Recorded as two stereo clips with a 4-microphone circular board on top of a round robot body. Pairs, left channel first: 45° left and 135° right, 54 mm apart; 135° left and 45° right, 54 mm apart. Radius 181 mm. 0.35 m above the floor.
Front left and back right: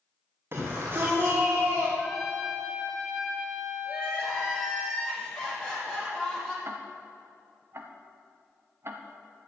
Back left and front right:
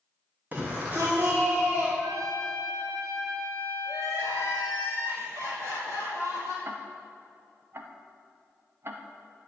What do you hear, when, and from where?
0.5 s a shout: 95° right, 2 m; by 1.9 s 85° right, 2.5 m
2.0 s a trumpet: 45° right, 2.5 m
3.9 s crying: 30° right, 5 m
6.7 s ticking: 90° right, 1.0 m